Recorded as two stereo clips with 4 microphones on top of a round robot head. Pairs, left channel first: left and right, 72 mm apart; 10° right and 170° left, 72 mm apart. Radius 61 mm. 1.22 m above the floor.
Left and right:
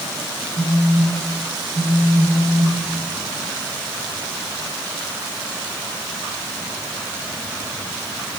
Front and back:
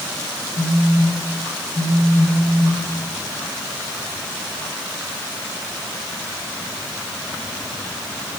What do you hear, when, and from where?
0.6 s a phone buzzing: 10° right, 3.5 m